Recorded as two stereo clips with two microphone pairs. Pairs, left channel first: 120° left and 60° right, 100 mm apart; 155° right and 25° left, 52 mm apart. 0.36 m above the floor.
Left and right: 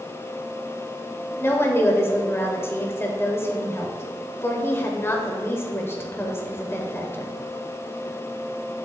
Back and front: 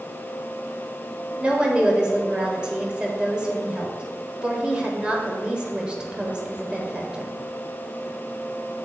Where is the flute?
I don't hear a flute.